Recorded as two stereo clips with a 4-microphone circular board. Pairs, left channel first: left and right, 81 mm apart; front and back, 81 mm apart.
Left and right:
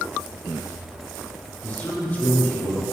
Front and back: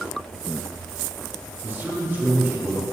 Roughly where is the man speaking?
Behind left.